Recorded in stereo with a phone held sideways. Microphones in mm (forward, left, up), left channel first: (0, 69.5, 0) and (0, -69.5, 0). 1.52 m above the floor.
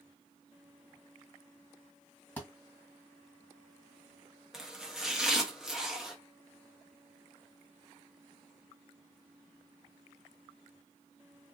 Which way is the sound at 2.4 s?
10° left (ahead or behind).